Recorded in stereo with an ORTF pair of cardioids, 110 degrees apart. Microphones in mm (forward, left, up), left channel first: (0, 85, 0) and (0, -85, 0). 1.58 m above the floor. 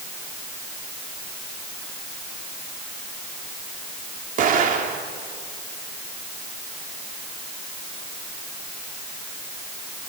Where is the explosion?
55° right, 3 m.